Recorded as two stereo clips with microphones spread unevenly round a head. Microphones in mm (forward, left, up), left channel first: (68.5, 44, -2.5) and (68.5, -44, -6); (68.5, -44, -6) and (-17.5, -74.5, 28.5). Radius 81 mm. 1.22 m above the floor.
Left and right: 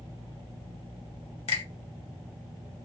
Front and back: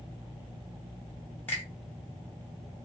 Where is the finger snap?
105° left, 1.4 m.